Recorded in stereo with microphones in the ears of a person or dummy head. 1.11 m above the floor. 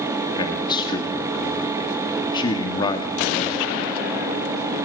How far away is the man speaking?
About 2 m.